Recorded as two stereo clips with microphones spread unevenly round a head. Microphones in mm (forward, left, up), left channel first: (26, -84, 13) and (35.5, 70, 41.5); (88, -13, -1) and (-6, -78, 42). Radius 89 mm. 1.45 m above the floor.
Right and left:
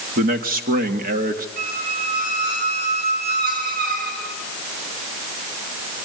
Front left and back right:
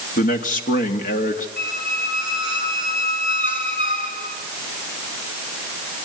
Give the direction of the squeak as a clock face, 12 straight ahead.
9 o'clock.